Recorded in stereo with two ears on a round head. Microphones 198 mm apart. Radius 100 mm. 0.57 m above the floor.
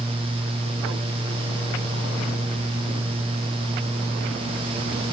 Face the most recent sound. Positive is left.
No sound to turn to.